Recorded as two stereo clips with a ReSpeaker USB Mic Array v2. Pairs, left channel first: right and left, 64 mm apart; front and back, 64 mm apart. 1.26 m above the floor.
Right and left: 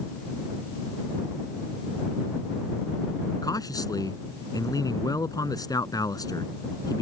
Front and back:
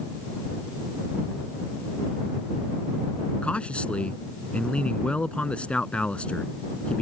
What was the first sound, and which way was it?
A man speaking, 75° right.